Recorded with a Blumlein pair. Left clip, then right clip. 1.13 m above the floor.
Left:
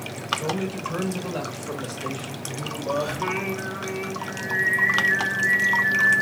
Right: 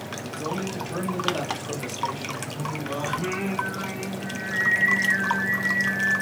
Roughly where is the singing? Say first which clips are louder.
Left 2 dB; ahead left.